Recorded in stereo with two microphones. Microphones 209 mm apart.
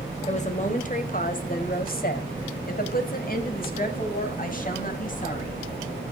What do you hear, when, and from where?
0.3 s a woman speaking: 35° left (ahead or behind), 1.7 m; by 5.6 s 40° left (ahead or behind), 3 m